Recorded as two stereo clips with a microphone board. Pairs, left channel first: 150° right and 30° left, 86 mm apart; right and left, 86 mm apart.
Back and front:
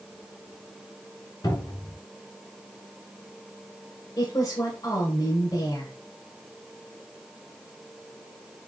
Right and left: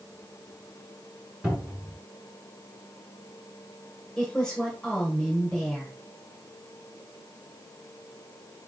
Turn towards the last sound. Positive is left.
turn(degrees=-170)